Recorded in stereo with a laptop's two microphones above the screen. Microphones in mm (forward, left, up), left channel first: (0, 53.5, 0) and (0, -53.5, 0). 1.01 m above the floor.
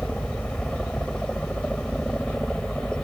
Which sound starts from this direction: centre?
A helicopter, at 0.0 s.